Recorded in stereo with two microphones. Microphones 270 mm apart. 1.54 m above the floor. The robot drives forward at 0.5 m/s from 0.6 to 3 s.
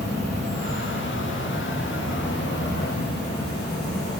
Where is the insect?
70° left (ahead or behind), 2 m; by 4.2 s 55° left (ahead or behind), 2.5 m.